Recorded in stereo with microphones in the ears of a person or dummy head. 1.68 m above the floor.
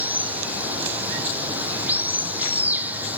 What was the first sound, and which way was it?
Running water, 10° right (ahead or behind).